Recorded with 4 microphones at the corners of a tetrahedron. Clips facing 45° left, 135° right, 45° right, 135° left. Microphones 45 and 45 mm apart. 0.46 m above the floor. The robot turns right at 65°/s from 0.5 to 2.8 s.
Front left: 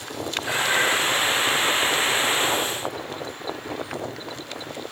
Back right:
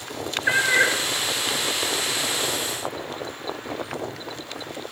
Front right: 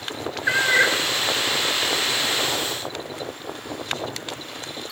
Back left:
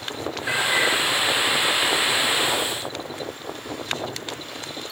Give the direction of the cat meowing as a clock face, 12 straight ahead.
3 o'clock.